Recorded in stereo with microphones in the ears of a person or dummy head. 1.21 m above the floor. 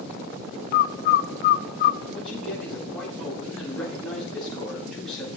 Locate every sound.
0.7 s a bird: 55° left (ahead or behind), 0.5 m
2.1 s a man speaking: 5° left (ahead or behind), 7.5 m